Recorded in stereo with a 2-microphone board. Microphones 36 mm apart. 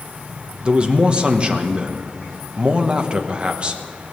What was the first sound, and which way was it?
A man speaking, 30° right (ahead or behind).